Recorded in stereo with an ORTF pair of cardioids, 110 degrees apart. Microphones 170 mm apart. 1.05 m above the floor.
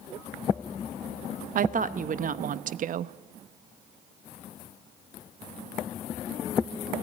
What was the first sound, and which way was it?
A woman speaking, 50° right.